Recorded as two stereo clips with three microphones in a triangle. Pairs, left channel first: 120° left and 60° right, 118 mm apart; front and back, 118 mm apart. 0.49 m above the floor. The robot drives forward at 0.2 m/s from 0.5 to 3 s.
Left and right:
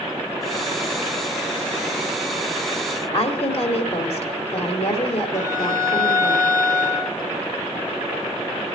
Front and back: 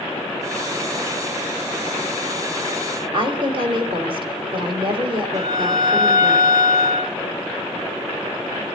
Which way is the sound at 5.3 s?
125° right.